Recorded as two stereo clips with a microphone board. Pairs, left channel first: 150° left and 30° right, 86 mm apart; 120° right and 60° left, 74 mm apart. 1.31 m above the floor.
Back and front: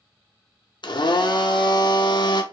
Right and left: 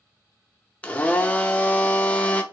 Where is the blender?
170° left, 0.6 m.